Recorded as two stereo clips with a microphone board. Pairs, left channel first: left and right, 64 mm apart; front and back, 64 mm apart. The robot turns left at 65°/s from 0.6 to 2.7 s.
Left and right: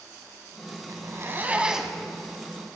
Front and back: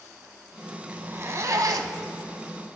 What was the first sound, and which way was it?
A zipper, 115° right.